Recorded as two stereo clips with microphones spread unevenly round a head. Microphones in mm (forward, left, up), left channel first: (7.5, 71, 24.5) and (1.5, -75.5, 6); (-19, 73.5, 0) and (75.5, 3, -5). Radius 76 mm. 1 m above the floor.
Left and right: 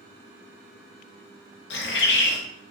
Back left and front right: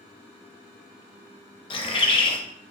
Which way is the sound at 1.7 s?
100° left.